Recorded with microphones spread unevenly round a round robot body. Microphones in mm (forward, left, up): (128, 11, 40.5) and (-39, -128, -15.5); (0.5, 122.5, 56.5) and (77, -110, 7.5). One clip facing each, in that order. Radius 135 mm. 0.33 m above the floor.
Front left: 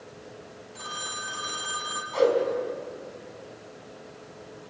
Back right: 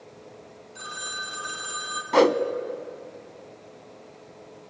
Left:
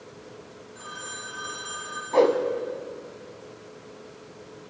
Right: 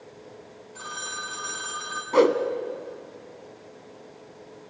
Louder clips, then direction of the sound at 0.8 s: Front left 1 dB, even; 55° right.